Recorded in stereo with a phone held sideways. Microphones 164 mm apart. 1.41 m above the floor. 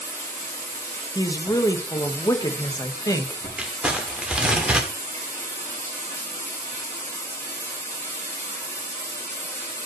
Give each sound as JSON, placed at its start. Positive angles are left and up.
{"t": 0.0, "sound": "running water", "side_deg": 15, "distance_m": 5.5}
{"t": 1.1, "sound": "a woman speaking", "side_deg": 20, "distance_m": 1.3}
{"t": 3.6, "sound": "crumpling", "side_deg": -5, "distance_m": 1.6}